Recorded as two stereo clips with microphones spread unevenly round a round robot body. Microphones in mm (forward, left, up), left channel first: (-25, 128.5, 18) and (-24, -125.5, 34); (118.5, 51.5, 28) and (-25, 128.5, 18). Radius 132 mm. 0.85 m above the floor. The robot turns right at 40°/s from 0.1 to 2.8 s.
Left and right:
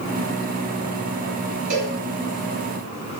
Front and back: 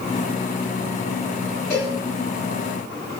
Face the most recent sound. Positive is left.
turn(degrees=-55)